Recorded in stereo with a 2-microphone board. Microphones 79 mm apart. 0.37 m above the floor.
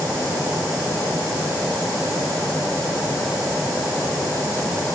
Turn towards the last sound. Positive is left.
No sound to turn to.